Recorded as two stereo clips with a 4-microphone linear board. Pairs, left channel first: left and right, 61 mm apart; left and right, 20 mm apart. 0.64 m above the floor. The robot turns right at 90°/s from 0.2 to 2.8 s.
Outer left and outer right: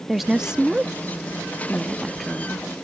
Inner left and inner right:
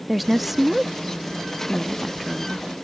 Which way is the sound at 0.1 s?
5° right (ahead or behind).